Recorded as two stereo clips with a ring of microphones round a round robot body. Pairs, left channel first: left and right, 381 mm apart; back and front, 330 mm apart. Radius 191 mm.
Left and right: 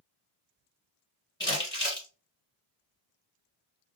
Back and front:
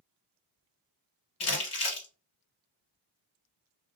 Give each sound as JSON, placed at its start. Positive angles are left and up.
{"t": 1.4, "sound": "crumpling", "azimuth_deg": 170, "distance_m": 1.8}